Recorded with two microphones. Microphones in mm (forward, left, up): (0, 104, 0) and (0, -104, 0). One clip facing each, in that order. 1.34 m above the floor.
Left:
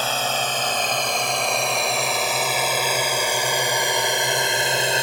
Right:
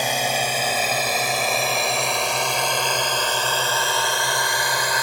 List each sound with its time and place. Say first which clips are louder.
0.0 s a drone: right 2 dB; 15° right (ahead or behind); by 5.0 s 25° left (ahead or behind)